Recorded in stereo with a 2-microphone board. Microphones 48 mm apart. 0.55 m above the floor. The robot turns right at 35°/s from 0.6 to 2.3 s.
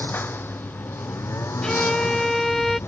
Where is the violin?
15° left (ahead or behind); by 2.8 s 5° left (ahead or behind).